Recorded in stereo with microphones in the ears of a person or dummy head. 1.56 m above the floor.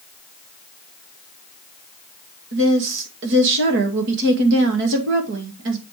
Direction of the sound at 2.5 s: 65° right (ahead or behind).